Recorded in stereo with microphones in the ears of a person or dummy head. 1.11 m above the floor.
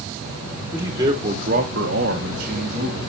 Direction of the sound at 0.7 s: 10° right (ahead or behind).